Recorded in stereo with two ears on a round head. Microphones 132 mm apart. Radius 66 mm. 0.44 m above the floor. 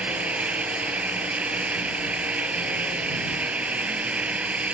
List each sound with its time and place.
0.0 s an engine running: 10° right (ahead or behind)